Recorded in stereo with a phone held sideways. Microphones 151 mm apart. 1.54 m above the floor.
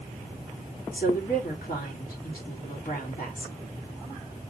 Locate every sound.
0.9 s a woman speaking: 75° left (ahead or behind), 4 m